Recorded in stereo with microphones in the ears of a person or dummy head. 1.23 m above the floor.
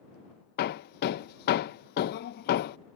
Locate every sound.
0.6 s hammering: 55° left (ahead or behind)